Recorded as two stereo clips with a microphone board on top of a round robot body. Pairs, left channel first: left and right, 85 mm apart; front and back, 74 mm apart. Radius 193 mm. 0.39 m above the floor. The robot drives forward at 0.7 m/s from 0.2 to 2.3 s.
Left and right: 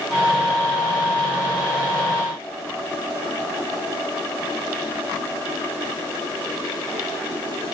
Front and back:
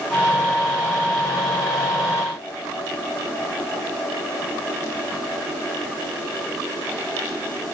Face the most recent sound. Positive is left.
No sound to turn to.